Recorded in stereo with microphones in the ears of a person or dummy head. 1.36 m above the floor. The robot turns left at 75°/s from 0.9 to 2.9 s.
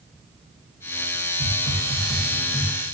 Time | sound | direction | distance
1.4 | a hiss | 130° right | 0.6 m